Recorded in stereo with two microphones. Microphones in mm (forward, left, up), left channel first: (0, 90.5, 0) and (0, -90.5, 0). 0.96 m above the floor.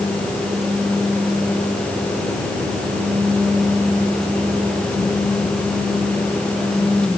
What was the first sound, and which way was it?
Only background noise.